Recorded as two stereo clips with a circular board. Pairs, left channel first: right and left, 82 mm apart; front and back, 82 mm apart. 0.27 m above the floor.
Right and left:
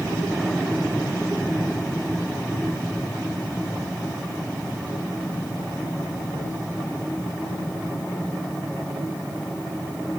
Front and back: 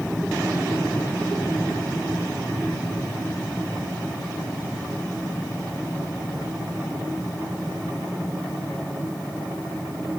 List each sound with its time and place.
Only background noise.